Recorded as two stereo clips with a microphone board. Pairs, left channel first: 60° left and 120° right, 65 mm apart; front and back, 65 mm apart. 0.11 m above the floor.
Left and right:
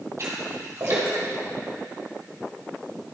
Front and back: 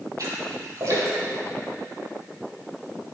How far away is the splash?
About 3.5 m.